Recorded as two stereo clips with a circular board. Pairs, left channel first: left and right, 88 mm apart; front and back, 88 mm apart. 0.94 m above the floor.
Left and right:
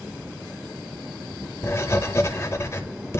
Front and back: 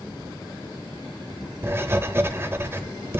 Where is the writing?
130° left, 0.8 m.